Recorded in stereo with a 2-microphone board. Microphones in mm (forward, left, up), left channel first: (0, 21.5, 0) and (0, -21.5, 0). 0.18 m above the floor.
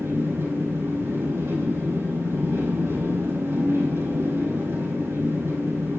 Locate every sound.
0.0 s an engine running: 80° right, 7 m